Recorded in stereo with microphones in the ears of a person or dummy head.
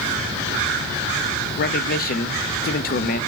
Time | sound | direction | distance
1.6 | a man speaking | 50° left (ahead or behind) | 0.5 m